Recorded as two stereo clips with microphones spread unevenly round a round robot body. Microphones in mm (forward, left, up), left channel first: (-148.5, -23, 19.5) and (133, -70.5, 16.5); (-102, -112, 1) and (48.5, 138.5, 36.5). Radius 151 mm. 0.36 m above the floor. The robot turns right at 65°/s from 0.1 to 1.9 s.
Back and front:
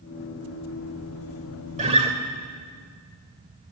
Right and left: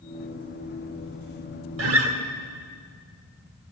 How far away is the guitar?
About 1.2 m.